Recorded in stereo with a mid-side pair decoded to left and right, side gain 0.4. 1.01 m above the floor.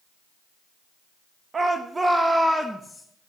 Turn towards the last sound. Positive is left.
turn(degrees=5)